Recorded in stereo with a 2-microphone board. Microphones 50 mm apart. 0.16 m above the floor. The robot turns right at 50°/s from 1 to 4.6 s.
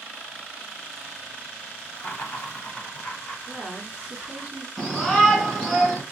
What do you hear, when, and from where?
1.9 s laughter: 55° left, 1.8 m; by 4.5 s 175° right, 1.8 m
3.5 s a woman speaking: 160° left, 2.0 m; by 4.7 s 145° right, 2.0 m
4.8 s a shout: 10° left (ahead or behind), 1.6 m